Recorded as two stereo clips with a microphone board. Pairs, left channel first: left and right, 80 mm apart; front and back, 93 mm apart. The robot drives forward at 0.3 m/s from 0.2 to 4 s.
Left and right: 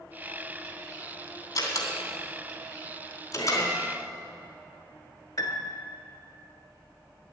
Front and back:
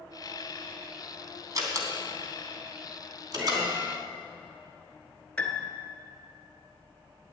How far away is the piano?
About 1.5 m.